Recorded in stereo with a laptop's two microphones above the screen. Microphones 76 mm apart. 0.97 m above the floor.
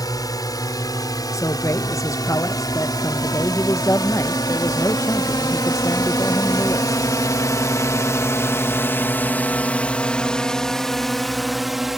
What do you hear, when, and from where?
0.0 s a drone: 55° left (ahead or behind); by 12.0 s 5° right (ahead or behind)
1.3 s a man speaking: 45° left (ahead or behind)